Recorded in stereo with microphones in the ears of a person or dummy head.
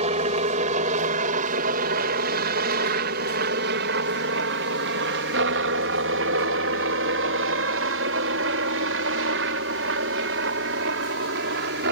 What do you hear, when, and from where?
0.0 s a helicopter: 35° right (ahead or behind); by 11.9 s 65° right (ahead or behind)